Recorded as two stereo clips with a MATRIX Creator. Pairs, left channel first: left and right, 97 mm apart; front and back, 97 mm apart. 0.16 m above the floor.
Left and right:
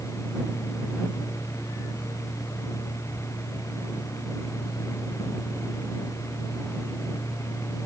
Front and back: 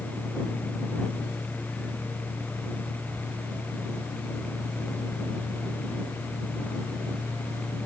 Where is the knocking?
I don't hear knocking.